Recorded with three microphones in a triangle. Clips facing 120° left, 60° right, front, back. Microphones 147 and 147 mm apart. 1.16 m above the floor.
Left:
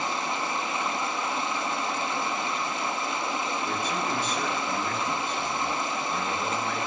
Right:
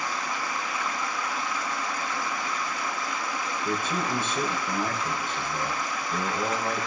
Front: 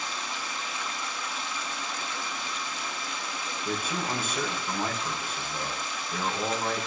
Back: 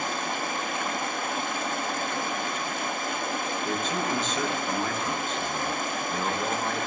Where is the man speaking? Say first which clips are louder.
Right 1 dB, back 1 dB; 80° right, 5 m.